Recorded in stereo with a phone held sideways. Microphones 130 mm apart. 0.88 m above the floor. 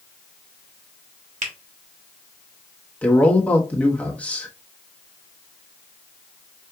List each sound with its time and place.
1.4 s a finger snap: 75° right (ahead or behind), 1.3 m
3.0 s a man speaking: 10° left (ahead or behind), 1.2 m